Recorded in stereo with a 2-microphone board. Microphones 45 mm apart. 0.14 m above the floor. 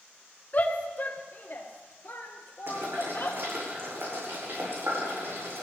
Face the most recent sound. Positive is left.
turn(degrees=-65)  # may be behind; listen again after turning